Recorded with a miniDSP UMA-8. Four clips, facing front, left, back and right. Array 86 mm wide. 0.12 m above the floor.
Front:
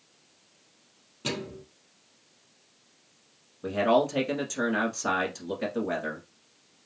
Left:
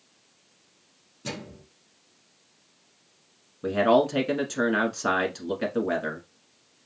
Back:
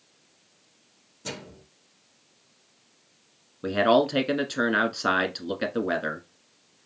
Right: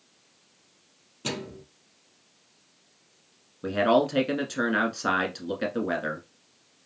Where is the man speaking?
175° right, 1.1 m.